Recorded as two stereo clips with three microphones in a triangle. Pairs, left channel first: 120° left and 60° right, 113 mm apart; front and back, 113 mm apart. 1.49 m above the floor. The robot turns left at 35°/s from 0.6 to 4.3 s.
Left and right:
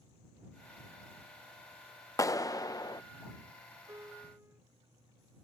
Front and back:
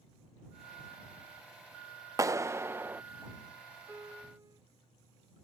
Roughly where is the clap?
Behind left.